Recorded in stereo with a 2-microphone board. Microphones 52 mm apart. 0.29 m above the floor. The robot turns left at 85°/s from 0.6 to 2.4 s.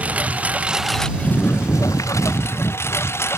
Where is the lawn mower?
150° right; by 3.4 s 55° left.